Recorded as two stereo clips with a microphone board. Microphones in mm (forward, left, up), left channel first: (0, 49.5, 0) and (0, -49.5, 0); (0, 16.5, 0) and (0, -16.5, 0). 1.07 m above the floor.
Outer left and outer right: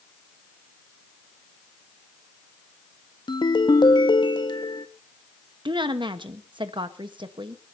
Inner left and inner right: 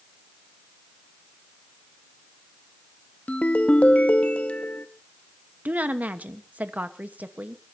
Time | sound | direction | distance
3.3 | a ringtone | 50° left (ahead or behind) | 0.9 m
5.7 | a woman speaking | 55° right (ahead or behind) | 1.3 m